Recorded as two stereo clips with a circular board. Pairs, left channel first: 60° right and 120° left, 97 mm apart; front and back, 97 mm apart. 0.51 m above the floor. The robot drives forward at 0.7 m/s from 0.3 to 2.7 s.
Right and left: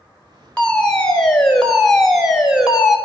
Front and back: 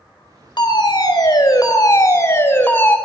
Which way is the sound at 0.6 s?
15° left.